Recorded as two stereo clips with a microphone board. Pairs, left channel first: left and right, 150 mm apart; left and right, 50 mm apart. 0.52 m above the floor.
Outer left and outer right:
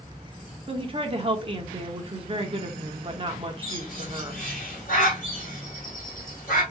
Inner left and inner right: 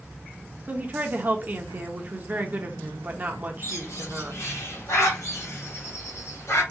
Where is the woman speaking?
35° right (ahead or behind), 0.9 m.